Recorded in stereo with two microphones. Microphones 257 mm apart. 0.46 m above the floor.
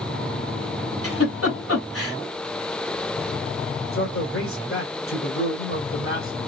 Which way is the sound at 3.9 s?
55° left (ahead or behind).